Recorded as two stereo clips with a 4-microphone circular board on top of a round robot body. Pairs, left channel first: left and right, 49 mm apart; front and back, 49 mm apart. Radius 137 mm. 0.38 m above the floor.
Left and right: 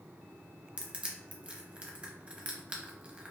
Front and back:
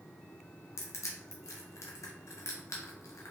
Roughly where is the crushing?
Ahead right.